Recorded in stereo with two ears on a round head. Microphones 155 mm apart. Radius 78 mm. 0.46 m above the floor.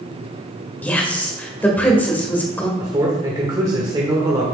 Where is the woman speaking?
10° left (ahead or behind), 1.4 m.